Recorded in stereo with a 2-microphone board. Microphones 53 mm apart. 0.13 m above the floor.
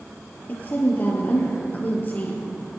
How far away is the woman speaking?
About 3 m.